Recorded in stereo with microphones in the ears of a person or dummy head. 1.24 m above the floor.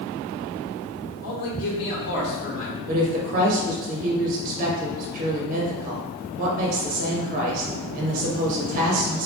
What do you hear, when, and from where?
1.2 s a man speaking: 75° left (ahead or behind), 1.8 m; by 2.8 s 35° left (ahead or behind), 1.5 m
2.9 s a woman speaking: 45° right (ahead or behind), 0.9 m